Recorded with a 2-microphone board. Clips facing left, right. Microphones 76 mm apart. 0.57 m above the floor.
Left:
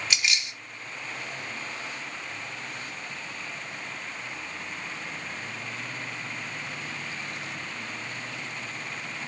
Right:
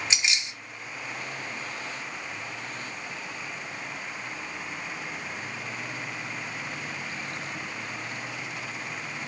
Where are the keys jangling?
25° right (ahead or behind), 0.7 m.